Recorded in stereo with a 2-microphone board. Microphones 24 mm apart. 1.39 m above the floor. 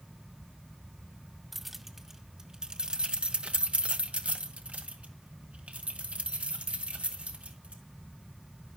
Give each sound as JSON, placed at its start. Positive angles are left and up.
{"t": 1.5, "sound": "keys jangling", "side_deg": -5, "distance_m": 1.3}